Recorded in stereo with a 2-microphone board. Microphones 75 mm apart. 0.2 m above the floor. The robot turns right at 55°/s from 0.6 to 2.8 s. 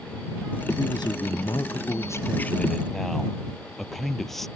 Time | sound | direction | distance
0.8 | a man speaking | 65° left | ?